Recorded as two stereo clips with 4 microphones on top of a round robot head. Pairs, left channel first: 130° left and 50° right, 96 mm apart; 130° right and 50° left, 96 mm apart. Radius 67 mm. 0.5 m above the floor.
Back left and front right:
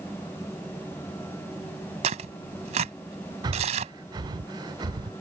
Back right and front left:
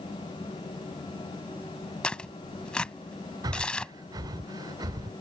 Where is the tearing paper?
50° right.